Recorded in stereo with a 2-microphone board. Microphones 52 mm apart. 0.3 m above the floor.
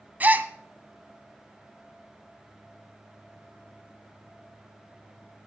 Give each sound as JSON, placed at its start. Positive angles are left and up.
{"t": 0.2, "sound": "a gasp", "side_deg": -35, "distance_m": 0.8}